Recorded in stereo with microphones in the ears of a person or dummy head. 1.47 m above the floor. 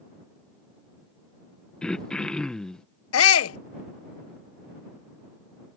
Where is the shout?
85° left.